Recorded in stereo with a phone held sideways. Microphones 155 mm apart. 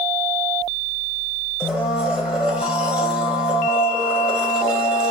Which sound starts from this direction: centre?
A blender, at 1.6 s.